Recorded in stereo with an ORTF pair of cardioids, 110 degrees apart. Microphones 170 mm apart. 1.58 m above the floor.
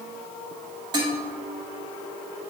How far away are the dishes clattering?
About 2 m.